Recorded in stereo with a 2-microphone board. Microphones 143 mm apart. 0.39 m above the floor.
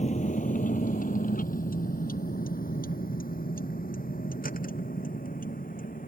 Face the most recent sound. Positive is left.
turn(degrees=75)  # may be behind; listen again after turning